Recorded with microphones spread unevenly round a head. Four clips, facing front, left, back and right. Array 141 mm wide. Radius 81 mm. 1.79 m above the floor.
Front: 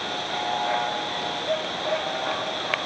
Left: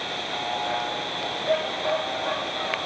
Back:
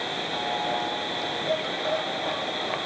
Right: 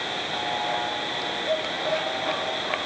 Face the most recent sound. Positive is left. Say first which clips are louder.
# right 1 dB, front 1 dB
turn(degrees=-170)